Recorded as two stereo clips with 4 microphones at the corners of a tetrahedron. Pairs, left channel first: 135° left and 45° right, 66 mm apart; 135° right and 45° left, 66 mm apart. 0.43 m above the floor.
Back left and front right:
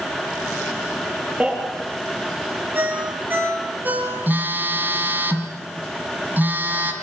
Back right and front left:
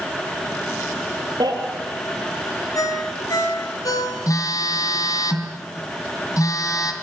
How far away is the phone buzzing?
About 3 m.